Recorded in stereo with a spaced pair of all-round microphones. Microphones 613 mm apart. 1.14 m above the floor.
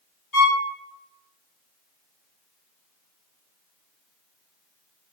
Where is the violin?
30° left (ahead or behind), 1.3 m.